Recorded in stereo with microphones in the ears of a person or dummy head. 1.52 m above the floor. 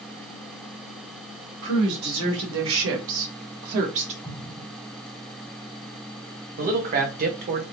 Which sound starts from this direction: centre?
An explosion, at 4.2 s.